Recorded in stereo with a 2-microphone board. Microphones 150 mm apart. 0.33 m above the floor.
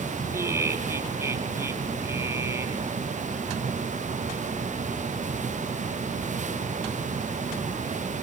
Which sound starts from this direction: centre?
Laughter, at 0.3 s.